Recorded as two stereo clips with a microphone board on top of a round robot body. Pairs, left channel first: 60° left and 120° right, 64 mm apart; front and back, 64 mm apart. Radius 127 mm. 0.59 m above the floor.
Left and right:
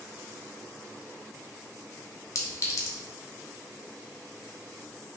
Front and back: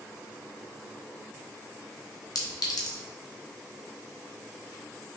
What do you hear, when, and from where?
2.4 s a clink: 15° left, 0.7 m